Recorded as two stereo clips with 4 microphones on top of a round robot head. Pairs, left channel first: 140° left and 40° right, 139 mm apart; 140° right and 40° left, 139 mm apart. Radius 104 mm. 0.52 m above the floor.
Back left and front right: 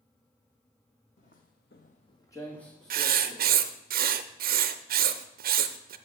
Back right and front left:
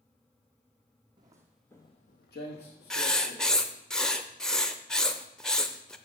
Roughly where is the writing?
Ahead right.